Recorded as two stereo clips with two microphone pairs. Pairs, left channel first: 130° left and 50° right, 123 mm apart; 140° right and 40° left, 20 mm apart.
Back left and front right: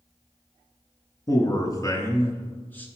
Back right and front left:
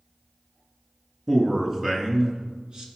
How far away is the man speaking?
About 1.7 m.